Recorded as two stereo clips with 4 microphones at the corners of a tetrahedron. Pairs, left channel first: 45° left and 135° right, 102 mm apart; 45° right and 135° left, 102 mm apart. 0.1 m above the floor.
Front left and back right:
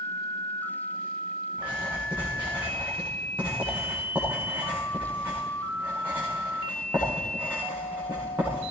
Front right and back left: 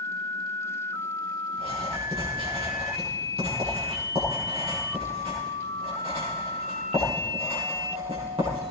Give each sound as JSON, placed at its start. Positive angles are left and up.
{"t": 1.5, "sound": "writing", "azimuth_deg": 155, "distance_m": 9.0}